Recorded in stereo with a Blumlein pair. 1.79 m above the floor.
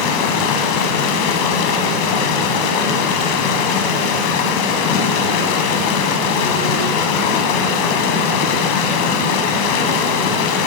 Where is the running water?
40° left, 1.1 m.